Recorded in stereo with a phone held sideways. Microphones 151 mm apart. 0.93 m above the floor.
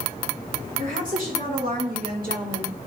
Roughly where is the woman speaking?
Right.